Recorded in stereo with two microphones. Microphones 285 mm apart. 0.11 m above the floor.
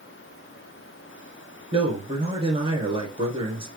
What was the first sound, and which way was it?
A man speaking, 15° right (ahead or behind).